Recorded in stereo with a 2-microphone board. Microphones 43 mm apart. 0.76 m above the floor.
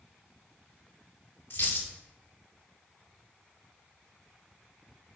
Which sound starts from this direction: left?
A dropped coin, at 1.5 s.